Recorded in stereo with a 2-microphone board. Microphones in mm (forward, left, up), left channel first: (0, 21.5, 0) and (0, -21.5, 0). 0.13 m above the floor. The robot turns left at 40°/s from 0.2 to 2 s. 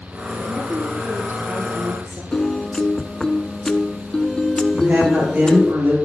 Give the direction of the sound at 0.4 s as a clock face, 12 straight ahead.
1 o'clock.